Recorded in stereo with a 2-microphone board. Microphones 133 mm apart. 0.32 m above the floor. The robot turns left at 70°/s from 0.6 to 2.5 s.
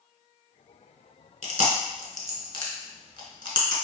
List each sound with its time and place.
1.4 s chewing: 70° left (ahead or behind), 0.7 m; by 3.8 s 35° left (ahead or behind), 0.7 m